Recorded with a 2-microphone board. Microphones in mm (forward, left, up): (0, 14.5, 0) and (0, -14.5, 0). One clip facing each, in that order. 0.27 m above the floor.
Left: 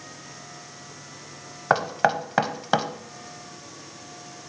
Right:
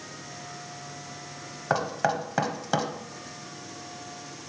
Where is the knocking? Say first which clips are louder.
Left 4 dB; 25° left (ahead or behind), 0.9 m.